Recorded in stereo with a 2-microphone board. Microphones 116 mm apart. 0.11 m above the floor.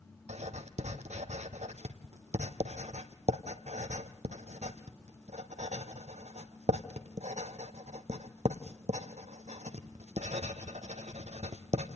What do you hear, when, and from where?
0.3 s writing: 80° right, 1.3 m